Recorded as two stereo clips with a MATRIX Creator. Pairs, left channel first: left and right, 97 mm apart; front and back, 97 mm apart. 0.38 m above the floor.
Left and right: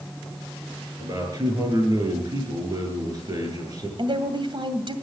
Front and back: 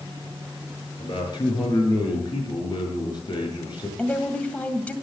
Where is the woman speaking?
75° right, 2 m.